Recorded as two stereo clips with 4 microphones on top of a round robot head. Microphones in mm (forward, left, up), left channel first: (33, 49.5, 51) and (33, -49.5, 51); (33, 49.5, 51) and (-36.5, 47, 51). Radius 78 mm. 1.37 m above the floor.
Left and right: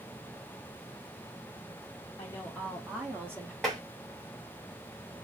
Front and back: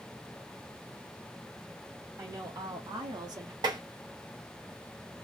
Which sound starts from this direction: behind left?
A woman speaking, at 2.2 s.